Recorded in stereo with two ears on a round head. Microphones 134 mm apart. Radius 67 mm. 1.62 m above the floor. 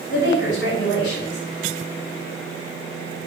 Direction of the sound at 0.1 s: 85° left.